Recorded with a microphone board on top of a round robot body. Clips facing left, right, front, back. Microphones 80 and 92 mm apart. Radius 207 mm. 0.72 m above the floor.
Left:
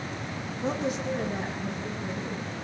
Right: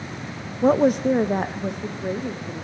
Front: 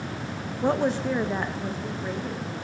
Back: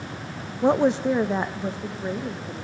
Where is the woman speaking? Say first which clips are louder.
Right 12 dB, back 4 dB; 110° right, 0.7 m.